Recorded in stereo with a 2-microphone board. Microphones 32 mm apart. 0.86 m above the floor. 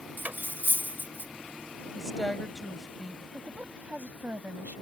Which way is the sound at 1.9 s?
10° left (ahead or behind).